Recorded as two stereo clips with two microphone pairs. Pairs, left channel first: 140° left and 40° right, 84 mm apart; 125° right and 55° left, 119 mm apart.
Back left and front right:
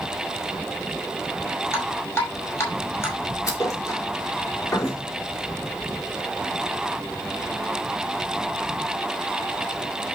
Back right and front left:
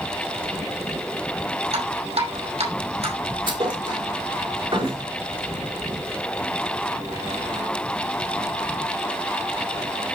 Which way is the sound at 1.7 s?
80° left.